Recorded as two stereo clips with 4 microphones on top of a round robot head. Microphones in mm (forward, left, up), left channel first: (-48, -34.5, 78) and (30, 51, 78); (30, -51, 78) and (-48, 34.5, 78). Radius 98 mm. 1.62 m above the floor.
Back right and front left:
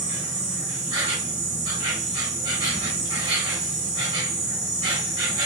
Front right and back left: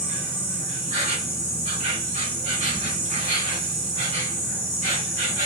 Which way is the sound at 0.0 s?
100° left.